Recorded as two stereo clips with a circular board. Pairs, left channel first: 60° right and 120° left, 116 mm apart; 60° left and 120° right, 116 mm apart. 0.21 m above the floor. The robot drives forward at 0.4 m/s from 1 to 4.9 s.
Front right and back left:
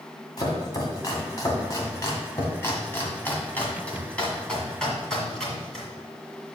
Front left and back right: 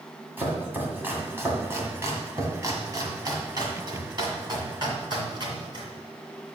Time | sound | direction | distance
0.4 | chopping | 60° right | 1.6 m